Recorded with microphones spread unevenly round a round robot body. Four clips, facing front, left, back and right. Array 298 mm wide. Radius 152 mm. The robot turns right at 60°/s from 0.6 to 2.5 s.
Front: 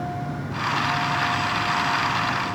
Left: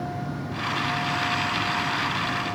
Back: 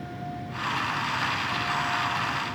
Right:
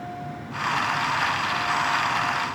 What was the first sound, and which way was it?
Only background noise.